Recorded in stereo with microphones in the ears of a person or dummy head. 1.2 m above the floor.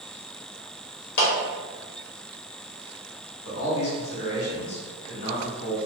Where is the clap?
60° left (ahead or behind), 1.3 m.